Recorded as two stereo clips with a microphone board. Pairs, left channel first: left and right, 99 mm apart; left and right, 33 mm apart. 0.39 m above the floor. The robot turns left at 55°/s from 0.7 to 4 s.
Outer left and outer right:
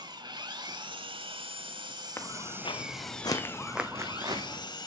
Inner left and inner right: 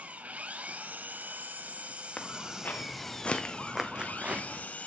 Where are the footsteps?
25° left (ahead or behind), 1.5 m; by 4.7 s 55° right (ahead or behind), 1.4 m.